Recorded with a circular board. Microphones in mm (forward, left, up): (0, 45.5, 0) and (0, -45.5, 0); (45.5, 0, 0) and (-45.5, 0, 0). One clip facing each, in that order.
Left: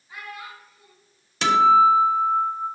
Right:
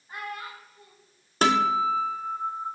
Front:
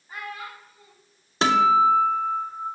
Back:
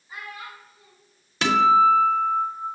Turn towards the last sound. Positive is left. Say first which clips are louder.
# left 7 dB, back 1 dB
turn(degrees=-55)